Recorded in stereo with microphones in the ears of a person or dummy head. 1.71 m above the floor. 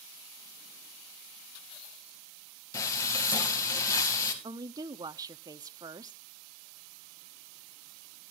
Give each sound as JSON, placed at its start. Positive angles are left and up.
{"t": 2.7, "sound": "frying", "side_deg": 20, "distance_m": 2.0}
{"t": 4.4, "sound": "a woman speaking", "side_deg": -20, "distance_m": 0.6}